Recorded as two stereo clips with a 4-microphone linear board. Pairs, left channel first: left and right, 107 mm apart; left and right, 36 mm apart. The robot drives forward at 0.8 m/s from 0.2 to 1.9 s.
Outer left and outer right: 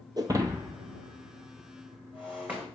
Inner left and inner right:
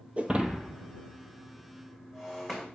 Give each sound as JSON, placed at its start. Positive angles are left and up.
{"t": 0.2, "sound": "breaking glass", "side_deg": -40, "distance_m": 0.6}